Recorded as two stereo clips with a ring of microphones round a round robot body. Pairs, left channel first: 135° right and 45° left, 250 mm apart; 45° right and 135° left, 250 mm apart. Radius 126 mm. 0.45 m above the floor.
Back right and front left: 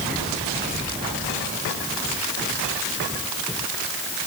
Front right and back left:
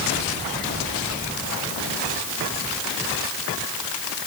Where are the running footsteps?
No running footsteps in this recording.